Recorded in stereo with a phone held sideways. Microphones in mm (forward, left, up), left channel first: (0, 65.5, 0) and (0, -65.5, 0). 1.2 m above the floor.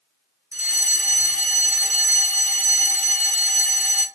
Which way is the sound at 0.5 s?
15° right (ahead or behind).